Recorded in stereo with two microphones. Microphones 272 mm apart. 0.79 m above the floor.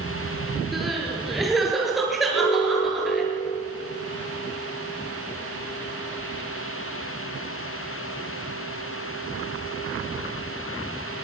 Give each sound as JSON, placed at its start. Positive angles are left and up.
{"t": 0.7, "sound": "crying", "side_deg": 0, "distance_m": 5.5}
{"t": 2.3, "sound": "an alarm", "side_deg": 75, "distance_m": 6.5}